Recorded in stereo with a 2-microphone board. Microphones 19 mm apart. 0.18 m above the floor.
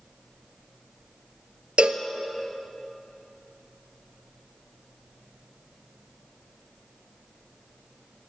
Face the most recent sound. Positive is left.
turn(degrees=-75)  # may be behind; listen again after turning